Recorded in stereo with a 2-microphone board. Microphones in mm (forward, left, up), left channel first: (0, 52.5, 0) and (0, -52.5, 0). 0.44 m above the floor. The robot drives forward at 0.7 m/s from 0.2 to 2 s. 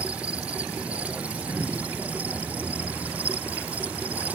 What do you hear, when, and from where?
0.0 s an insect: 10° right (ahead or behind); by 4.4 s 15° right (ahead or behind)